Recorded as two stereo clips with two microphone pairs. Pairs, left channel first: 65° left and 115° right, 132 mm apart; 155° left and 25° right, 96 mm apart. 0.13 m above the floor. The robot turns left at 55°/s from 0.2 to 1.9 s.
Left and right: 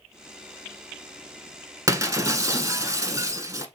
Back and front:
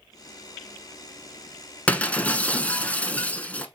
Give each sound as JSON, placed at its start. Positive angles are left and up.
{"t": 1.9, "sound": "breaking glass", "azimuth_deg": -150, "distance_m": 0.7}